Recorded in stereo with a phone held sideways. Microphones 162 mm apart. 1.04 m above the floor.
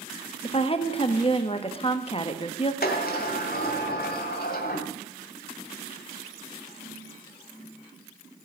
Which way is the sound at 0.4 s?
35° left (ahead or behind).